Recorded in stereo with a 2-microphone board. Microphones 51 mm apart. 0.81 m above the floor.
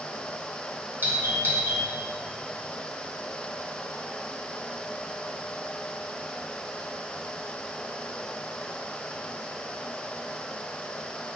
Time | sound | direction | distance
1.0 | a doorbell | 40° right (ahead or behind) | 1.6 m